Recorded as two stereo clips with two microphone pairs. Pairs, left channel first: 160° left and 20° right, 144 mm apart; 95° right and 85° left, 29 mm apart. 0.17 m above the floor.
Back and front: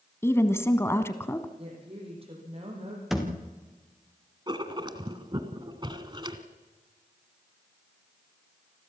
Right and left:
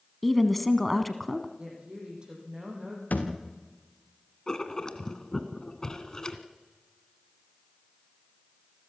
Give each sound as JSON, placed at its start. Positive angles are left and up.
{"t": 0.2, "sound": "a woman speaking", "azimuth_deg": -175, "distance_m": 1.1}
{"t": 1.6, "sound": "a woman speaking", "azimuth_deg": 30, "distance_m": 8.0}
{"t": 3.1, "sound": "a thud", "azimuth_deg": -105, "distance_m": 3.5}
{"t": 4.5, "sound": "writing", "azimuth_deg": -50, "distance_m": 1.6}